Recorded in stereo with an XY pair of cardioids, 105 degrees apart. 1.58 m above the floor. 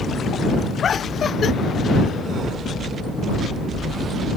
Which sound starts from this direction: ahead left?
Laughter, at 0.8 s.